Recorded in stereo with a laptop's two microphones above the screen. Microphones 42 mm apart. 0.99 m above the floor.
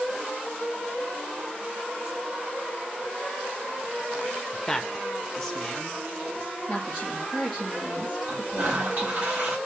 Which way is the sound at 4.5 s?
5° left (ahead or behind).